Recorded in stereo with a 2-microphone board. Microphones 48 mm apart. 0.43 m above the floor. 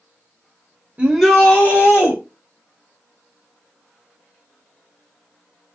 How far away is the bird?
No bird in this recording.